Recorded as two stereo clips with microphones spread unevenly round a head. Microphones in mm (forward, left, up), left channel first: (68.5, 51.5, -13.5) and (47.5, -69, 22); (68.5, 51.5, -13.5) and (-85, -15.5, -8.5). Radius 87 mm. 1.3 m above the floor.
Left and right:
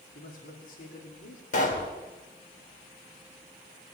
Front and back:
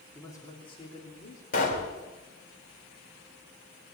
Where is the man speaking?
100° left, 2.5 m; by 1.4 s 65° left, 3 m.